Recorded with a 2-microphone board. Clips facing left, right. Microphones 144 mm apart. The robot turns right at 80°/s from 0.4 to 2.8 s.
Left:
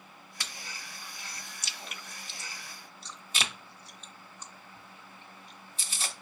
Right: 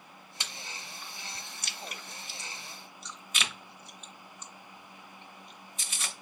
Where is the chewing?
20° right (ahead or behind), 0.7 m; by 6.2 s 35° left (ahead or behind), 0.7 m.